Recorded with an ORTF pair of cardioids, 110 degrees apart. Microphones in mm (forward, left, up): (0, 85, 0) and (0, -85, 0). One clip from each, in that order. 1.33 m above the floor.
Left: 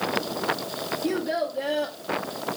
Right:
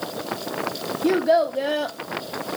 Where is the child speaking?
45° right, 0.6 m.